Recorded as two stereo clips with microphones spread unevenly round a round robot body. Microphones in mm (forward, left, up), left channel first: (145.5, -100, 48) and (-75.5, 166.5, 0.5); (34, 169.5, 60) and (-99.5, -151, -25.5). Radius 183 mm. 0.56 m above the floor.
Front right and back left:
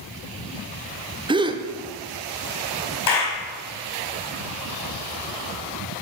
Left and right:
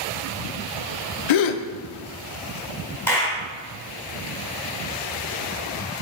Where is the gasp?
55° left, 0.6 m.